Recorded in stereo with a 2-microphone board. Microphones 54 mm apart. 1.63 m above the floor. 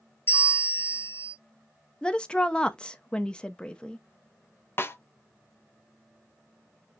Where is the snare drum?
40° left (ahead or behind), 0.6 m.